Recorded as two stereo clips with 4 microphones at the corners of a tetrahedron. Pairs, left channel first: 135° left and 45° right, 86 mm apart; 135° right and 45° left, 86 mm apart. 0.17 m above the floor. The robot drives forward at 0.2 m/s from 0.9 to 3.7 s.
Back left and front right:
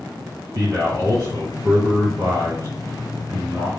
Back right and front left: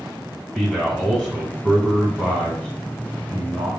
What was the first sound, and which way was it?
A man speaking, 50° right.